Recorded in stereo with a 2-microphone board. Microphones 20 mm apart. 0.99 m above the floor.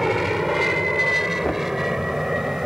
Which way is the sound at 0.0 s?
5° left (ahead or behind).